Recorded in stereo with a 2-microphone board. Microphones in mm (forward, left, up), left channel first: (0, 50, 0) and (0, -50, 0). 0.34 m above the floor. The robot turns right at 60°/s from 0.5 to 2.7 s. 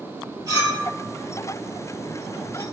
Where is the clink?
40° right (ahead or behind), 1.4 m; by 2.6 s 60° left (ahead or behind), 1.4 m.